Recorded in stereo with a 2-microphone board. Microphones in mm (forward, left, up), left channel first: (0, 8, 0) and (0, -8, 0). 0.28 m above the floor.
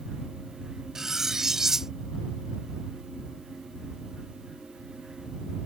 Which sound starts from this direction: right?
Cutlery clinking, at 0.9 s.